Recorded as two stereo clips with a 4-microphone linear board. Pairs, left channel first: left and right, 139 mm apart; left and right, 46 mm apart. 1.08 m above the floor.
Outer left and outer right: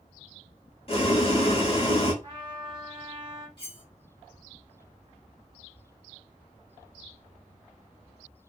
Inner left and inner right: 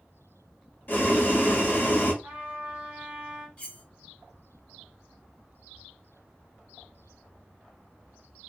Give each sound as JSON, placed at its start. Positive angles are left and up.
{"t": 0.9, "sound": "boiling", "side_deg": 45, "distance_m": 1.2}
{"t": 2.2, "sound": "a trumpet", "side_deg": -40, "distance_m": 1.4}
{"t": 3.6, "sound": "cutlery clinking", "side_deg": 40, "distance_m": 1.6}